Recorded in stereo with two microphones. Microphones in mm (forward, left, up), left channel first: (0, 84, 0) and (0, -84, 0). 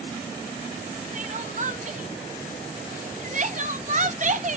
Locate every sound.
1.1 s crying: 45° right (ahead or behind), 0.9 m